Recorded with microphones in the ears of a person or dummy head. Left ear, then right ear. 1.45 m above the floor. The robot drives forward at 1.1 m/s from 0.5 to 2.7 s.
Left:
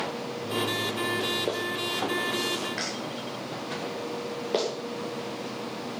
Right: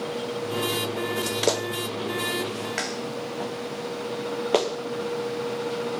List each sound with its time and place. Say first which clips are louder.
1.5 s a clap: right 3 dB; 85° right, 0.8 m; by 4.7 s 30° right (ahead or behind), 1.6 m